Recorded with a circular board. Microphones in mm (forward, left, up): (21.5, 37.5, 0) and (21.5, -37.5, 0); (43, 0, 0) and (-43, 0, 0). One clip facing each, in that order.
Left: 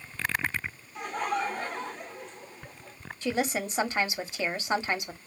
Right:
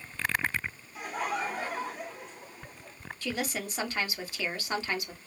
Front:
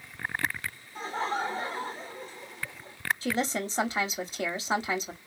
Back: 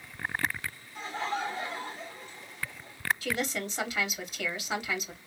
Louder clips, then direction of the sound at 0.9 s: Left 3 dB, front 2 dB; 10° right.